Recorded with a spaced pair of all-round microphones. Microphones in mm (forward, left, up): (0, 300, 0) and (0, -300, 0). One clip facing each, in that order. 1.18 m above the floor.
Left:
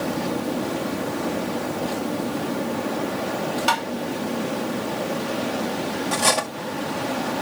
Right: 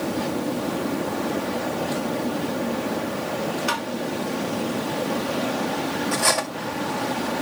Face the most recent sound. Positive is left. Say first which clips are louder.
# left 1 dB
turn(degrees=60)  # may be behind; listen again after turning